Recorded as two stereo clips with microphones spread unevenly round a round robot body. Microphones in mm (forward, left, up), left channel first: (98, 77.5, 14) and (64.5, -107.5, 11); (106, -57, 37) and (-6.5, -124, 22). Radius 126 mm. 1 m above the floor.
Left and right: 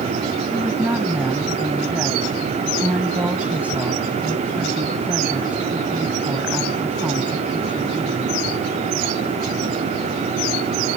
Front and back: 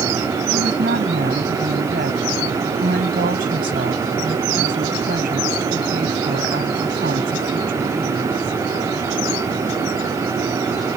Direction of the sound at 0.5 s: 175° left.